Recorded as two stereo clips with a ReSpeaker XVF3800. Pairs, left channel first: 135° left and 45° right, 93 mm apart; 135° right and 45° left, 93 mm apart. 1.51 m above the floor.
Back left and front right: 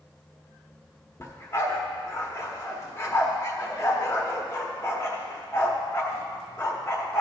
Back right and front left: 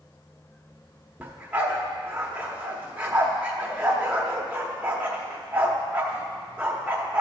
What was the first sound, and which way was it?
A dog barking, 110° left.